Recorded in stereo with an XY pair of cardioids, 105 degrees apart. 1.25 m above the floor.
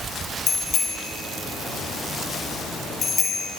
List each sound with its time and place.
0.5 s a bicycle bell: 55° left, 6 m